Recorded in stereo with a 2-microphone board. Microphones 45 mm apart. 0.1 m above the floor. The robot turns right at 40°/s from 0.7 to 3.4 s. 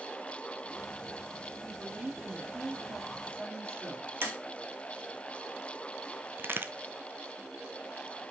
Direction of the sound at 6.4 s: 55° right (ahead or behind).